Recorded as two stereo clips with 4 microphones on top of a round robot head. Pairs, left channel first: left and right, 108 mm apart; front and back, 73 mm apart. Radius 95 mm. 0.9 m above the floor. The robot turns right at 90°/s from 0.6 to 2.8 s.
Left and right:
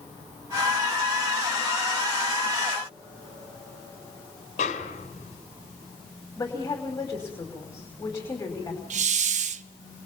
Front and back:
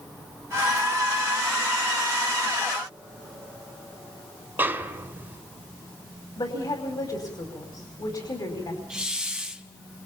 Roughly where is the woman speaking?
Ahead left.